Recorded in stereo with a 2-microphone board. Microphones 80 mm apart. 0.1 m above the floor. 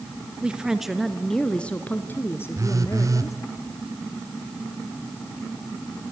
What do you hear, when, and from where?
0.4 s a woman speaking: 15° right (ahead or behind), 1.6 m; by 3.4 s 45° left (ahead or behind), 2 m
2.5 s a phone buzzing: 45° right (ahead or behind), 1.2 m